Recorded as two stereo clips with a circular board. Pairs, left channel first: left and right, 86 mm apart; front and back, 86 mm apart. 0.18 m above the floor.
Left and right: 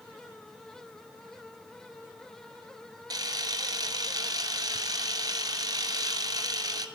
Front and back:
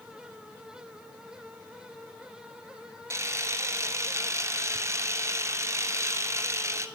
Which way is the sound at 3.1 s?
125° right.